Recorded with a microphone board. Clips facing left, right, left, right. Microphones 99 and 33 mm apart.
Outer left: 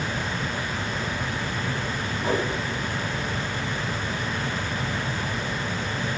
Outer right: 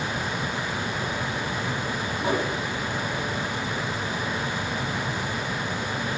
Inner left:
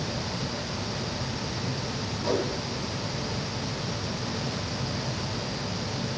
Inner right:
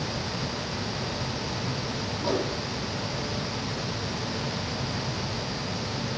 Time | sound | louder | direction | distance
2.2 | a whoosh | even, inner left 1 dB | 15° right (ahead or behind) | 7.5 m